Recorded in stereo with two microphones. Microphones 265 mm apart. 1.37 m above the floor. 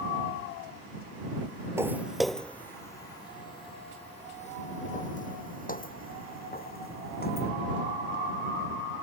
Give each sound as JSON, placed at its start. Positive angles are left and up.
{"t": 1.8, "sound": "footsteps", "side_deg": -10}